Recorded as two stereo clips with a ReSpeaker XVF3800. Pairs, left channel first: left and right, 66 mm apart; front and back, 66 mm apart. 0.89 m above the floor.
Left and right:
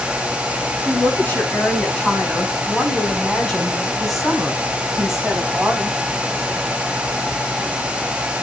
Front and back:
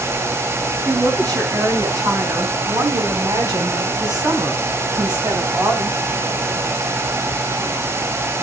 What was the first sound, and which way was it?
A woman speaking, 150° left.